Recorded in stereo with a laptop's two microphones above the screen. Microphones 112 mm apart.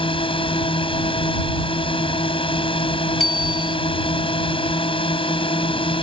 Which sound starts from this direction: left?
A drone, at 0.0 s.